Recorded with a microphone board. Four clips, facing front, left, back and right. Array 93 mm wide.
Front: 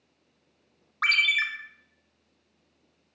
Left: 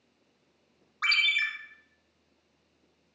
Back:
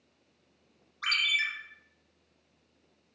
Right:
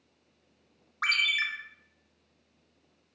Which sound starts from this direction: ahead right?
A ringtone, at 1.0 s.